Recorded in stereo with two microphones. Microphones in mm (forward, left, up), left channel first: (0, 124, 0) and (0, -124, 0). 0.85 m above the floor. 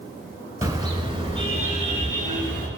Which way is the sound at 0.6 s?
15° right (ahead or behind).